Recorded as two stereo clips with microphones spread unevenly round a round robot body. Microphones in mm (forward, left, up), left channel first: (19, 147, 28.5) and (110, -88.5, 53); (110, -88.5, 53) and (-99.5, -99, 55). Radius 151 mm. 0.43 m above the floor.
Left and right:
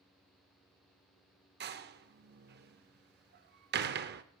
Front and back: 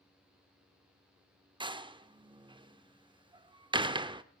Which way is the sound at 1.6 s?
115° right.